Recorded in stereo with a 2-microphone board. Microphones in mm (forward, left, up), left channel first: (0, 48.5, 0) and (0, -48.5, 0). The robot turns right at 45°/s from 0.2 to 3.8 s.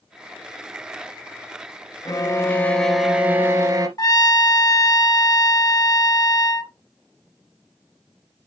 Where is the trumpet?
40° left (ahead or behind), 0.8 m.